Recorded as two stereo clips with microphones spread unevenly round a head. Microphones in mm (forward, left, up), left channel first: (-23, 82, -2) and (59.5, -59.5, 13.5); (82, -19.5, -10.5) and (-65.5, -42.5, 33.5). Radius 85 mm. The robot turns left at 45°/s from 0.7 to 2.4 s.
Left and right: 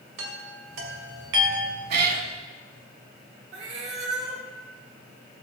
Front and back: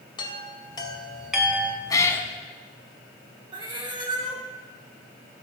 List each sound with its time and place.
0.2 s a chime: 55° right, 2.5 m; by 1.8 s 100° right, 2.5 m
1.9 s a cat meowing: 65° right, 1.2 m; by 2.3 s 85° right, 1.2 m
3.5 s a cat meowing: 115° right, 1.9 m